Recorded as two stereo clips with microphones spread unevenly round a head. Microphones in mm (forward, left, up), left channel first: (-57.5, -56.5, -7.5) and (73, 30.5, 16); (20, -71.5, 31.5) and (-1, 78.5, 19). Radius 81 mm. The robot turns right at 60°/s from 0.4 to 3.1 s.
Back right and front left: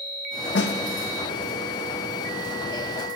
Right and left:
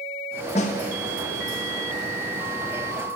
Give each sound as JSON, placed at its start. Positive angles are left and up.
{"t": 0.6, "sound": "a snare drum", "azimuth_deg": -130, "distance_m": 0.9}